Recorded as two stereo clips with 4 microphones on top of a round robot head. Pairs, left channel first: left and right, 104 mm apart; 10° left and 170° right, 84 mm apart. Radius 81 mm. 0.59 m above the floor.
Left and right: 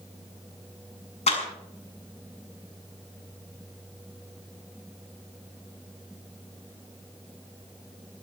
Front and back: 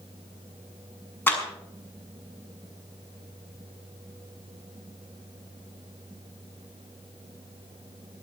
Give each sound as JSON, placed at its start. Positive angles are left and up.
{"t": 1.3, "sound": "a clap", "azimuth_deg": 75, "distance_m": 6.0}